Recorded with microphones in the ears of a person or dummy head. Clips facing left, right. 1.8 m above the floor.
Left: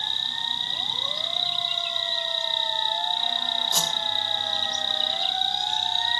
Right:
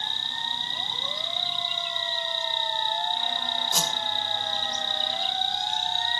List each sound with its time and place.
0.0 s an insect: 60° left (ahead or behind), 0.8 m
3.7 s a whoosh: centre (ahead or behind), 1.5 m